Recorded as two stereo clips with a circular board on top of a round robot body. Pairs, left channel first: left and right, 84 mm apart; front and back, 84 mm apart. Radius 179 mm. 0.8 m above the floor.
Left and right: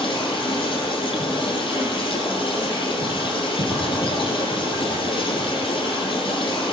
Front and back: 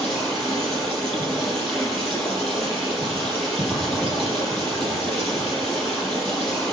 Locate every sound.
0.0 s running water: 85° left, 9 m